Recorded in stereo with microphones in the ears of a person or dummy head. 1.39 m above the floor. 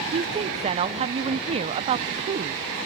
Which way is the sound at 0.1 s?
30° right (ahead or behind).